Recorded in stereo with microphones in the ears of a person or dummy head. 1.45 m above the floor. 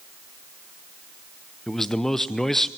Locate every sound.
1.7 s a man speaking: 5° left (ahead or behind), 0.7 m